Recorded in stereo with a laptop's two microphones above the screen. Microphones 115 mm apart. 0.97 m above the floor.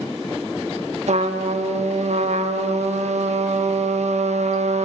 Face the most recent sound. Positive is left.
turn(degrees=-75)  # may be behind; listen again after turning